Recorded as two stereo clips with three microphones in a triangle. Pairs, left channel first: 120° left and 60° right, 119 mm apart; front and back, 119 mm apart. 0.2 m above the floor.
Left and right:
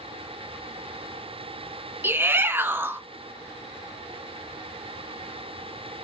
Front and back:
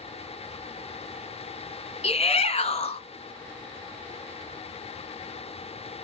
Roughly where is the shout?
Ahead.